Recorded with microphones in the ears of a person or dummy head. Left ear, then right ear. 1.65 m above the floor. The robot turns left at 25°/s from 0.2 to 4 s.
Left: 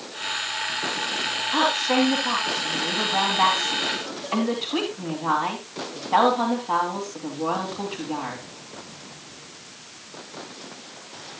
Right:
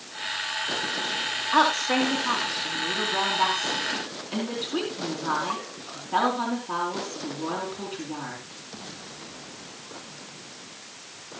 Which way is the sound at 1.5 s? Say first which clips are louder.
Even; 165° right.